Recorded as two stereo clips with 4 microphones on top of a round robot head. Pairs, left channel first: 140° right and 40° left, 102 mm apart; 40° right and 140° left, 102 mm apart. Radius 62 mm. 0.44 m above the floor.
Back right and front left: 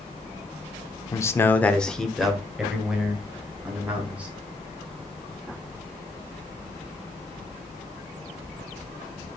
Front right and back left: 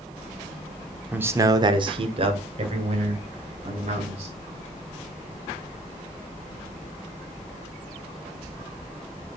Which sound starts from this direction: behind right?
A man speaking, at 1.1 s.